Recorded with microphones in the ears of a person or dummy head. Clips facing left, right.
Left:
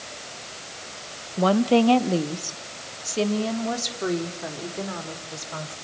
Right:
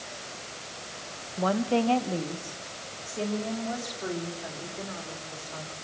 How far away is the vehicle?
No vehicle in this recording.